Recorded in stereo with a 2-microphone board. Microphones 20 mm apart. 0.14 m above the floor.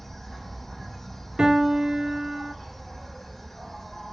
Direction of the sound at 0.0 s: 25° left (ahead or behind).